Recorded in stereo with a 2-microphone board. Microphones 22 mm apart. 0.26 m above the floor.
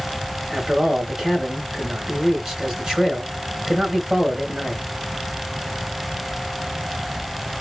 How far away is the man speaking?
About 2.5 m.